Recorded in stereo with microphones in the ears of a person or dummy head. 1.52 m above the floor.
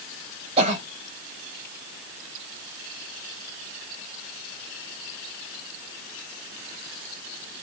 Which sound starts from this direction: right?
A cough, at 0.6 s.